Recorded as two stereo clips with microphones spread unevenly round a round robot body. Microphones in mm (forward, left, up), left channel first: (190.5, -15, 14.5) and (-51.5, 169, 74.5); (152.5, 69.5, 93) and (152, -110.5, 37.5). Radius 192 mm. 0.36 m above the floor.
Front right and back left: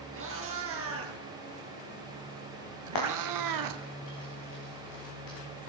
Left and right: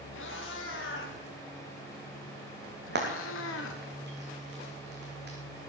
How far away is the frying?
About 4.5 m.